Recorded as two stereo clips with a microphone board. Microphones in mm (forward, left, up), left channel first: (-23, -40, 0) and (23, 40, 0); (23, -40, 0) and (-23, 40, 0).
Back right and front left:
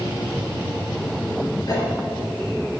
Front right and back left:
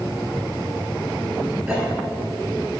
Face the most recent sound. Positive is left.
turn(degrees=-170)